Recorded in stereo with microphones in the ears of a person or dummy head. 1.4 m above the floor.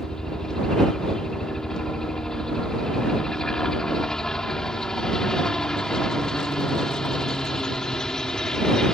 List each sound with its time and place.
0.0 s a helicopter: 5° left (ahead or behind)